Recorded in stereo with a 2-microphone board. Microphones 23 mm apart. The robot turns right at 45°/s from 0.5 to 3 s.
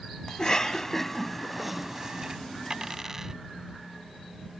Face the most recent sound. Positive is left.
turn(degrees=-20)  # may be behind; listen again after turning